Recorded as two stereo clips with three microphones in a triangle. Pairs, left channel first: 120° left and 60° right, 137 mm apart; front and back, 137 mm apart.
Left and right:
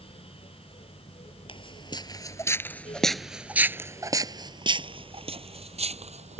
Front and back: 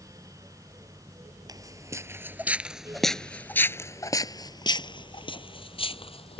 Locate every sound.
1.5 s footsteps: 135° left; by 6.4 s 40° right